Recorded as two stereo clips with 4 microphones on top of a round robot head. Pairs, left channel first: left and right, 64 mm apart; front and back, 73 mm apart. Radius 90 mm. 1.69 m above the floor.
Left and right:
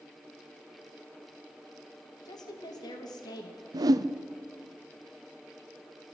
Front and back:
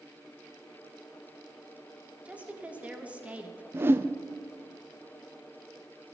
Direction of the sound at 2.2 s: 110° left.